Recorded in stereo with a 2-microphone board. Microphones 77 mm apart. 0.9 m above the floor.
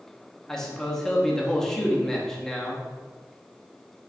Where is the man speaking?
5° left (ahead or behind), 0.9 m.